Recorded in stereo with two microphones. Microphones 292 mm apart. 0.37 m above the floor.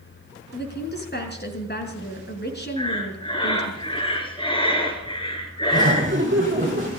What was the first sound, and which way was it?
A woman speaking, 35° left (ahead or behind).